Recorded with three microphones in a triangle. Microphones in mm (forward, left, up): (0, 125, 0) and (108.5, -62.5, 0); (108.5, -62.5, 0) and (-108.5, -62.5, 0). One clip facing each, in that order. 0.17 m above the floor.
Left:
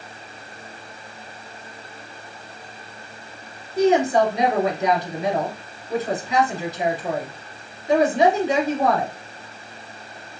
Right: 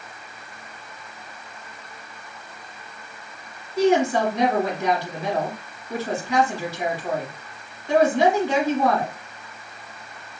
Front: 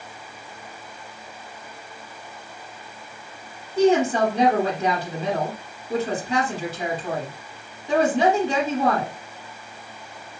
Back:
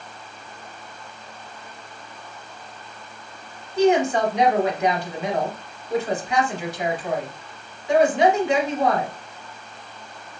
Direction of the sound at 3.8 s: 50° left.